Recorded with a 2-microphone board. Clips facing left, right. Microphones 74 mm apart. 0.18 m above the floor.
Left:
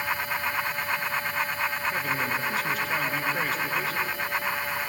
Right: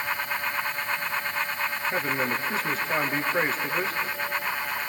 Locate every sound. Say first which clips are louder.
1.9 s a man speaking: right 1 dB; 35° right (ahead or behind), 2.5 m